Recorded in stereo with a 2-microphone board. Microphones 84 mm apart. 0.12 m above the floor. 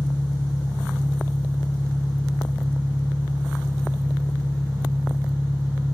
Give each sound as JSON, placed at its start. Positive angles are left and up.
{"t": 0.0, "sound": "an engine running", "side_deg": -20, "distance_m": 5.0}